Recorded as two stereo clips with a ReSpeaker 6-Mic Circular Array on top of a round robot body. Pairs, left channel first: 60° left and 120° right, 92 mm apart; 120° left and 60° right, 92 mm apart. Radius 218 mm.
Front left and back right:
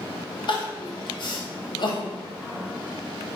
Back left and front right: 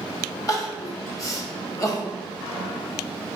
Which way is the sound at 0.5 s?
75° left.